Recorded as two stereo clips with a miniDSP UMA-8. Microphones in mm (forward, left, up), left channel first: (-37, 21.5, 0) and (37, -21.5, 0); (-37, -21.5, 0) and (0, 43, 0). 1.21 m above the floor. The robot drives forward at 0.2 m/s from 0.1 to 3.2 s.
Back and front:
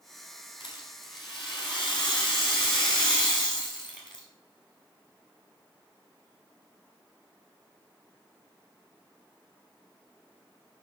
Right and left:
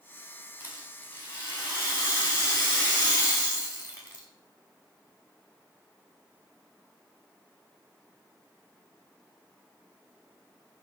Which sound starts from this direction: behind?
A rattle, at 0.6 s.